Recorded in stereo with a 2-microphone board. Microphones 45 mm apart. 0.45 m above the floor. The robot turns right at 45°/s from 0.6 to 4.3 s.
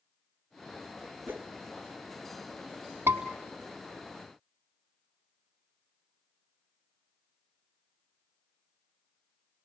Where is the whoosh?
50° right (ahead or behind), 2.0 m; by 1.5 s 40° right (ahead or behind), 2.0 m.